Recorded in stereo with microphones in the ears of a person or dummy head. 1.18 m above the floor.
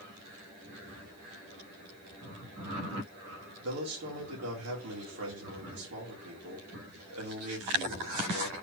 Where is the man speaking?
75° right (ahead or behind), 2.0 m.